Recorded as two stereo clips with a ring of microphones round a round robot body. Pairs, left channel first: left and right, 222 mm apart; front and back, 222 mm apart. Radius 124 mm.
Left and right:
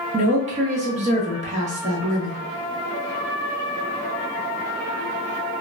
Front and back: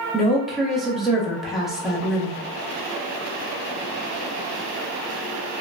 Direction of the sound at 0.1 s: 90° right.